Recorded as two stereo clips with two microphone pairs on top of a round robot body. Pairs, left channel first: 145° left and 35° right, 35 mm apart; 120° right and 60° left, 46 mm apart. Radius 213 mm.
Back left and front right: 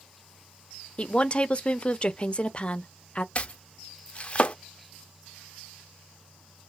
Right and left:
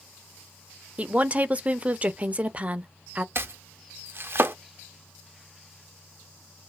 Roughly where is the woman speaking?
Left.